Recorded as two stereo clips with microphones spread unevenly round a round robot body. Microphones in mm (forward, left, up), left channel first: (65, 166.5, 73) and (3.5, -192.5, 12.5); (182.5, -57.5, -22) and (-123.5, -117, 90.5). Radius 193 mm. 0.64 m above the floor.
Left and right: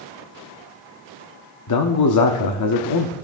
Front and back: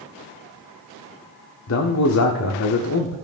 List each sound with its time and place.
1.7 s a man speaking: 40° left, 1.1 m